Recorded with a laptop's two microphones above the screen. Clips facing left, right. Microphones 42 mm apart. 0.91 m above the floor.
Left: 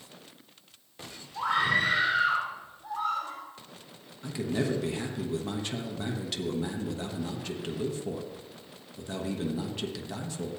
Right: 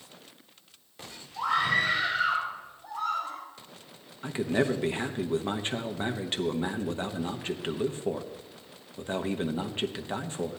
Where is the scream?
30° left (ahead or behind), 4.5 m.